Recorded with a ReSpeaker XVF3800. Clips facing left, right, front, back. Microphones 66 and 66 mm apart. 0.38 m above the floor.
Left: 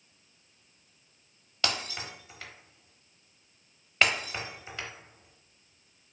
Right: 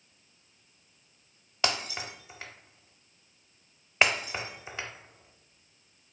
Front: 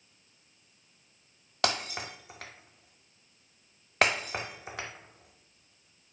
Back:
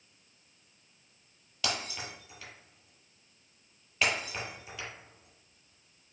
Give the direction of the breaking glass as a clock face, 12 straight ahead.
1 o'clock.